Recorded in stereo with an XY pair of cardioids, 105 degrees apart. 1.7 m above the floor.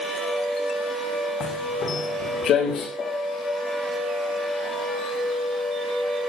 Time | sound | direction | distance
1.4 | footsteps | 65° left | 8 m
3.0 | a piano | 60° left | 4.5 m